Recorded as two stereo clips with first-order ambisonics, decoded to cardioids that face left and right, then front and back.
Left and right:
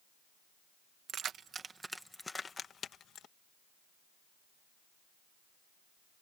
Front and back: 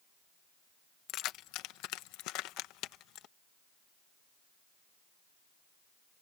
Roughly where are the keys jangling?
Ahead right.